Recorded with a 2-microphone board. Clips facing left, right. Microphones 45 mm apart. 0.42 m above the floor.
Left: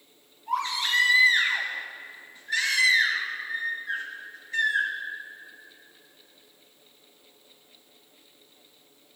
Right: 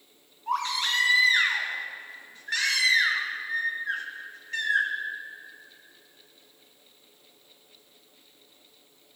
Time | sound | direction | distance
0.5 | a baby crying | 55° right (ahead or behind) | 3.5 m